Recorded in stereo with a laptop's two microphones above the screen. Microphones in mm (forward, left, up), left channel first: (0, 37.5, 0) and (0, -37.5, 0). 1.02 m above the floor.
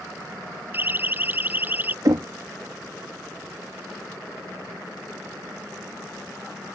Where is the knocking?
50° right (ahead or behind).